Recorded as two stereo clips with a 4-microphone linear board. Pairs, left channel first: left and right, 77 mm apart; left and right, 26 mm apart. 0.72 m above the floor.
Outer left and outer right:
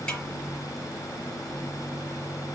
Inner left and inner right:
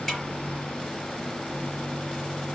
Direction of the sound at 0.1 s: 15° left (ahead or behind).